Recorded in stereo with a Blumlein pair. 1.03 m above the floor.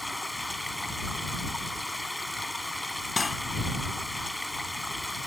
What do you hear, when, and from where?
0.0 s running water: straight ahead
3.2 s cutlery clinking: 10° left